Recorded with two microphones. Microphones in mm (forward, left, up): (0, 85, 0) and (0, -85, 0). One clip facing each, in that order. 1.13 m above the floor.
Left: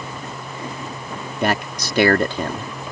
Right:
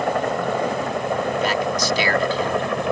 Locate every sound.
0.0 s a helicopter: 75° right (ahead or behind)
1.4 s a man speaking: 65° left (ahead or behind)